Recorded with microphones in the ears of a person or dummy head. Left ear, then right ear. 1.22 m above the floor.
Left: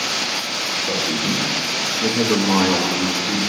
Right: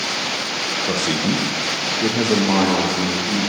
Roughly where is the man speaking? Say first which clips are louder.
Even; right.